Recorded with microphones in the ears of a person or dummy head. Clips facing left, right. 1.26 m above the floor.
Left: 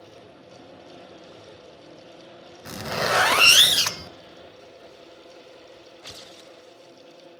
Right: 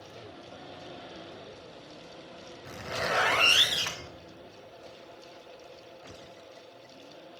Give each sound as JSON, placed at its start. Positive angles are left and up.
{"t": 2.6, "sound": "a zipper", "side_deg": 65, "distance_m": 0.6}